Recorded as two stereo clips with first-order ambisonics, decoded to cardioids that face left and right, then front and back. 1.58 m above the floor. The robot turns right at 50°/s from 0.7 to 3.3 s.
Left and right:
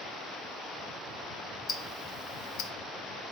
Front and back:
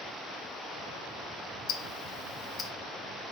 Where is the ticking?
20° left, 0.7 m; by 2.7 s 70° left, 0.7 m.